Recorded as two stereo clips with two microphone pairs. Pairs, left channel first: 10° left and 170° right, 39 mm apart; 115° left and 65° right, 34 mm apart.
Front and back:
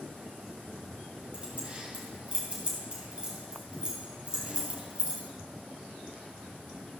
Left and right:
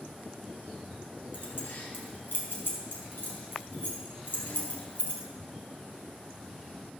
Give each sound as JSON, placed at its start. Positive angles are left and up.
{"t": 1.3, "sound": "keys jangling", "azimuth_deg": 130, "distance_m": 3.5}